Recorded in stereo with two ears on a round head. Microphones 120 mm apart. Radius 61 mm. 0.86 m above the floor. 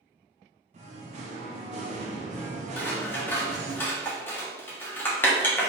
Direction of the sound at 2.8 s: 15° left (ahead or behind).